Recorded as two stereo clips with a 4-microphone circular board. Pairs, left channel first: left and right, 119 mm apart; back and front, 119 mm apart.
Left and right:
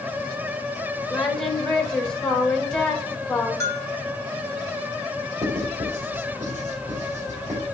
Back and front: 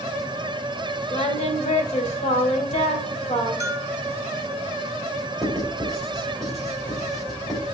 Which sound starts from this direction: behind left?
A bell, at 3.6 s.